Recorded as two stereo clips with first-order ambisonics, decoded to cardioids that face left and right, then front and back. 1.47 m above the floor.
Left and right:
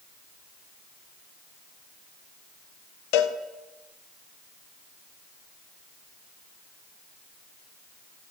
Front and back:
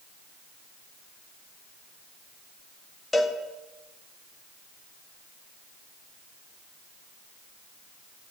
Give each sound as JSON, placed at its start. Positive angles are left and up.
{"t": 3.1, "sound": "a cowbell", "azimuth_deg": 80, "distance_m": 1.0}